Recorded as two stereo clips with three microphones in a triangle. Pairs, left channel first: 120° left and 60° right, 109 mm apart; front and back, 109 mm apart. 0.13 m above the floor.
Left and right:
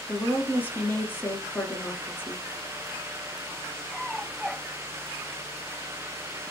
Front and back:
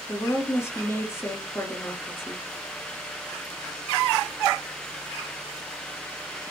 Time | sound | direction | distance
0.1 | a woman speaking | 55° left | 2 m